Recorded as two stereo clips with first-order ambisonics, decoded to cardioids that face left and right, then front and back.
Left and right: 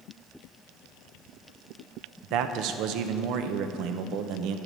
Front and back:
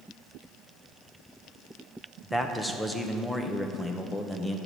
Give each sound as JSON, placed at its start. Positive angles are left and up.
{"t": 2.2, "sound": "a man speaking", "azimuth_deg": -80, "distance_m": 0.7}